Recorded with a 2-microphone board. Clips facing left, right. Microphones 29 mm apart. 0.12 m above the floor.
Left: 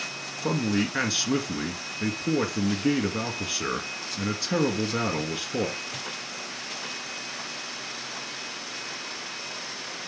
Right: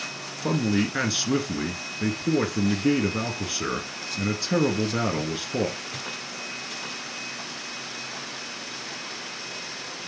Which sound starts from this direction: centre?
A man speaking, at 0.4 s.